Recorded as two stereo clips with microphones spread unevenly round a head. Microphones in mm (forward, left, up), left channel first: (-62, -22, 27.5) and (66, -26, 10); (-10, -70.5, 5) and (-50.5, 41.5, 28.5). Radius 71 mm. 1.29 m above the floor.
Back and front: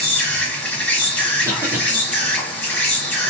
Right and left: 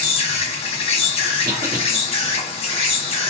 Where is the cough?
75° left, 0.8 m.